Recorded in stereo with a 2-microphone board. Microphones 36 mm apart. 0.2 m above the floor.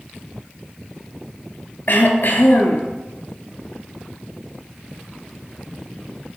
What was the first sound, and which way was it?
Throat clearing, 60° left (ahead or behind).